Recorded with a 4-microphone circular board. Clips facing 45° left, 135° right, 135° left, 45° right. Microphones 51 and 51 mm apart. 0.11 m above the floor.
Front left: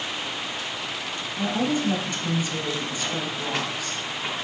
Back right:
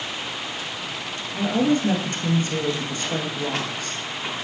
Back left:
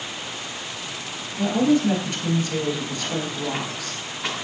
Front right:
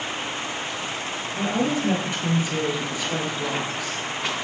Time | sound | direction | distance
1.3 | a woman speaking | 120° right | 1.5 m